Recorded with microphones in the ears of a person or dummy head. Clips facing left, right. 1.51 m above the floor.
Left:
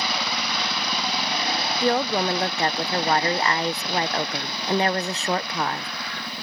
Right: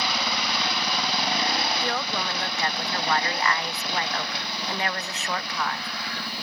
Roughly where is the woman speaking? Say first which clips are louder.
Left 8 dB; left.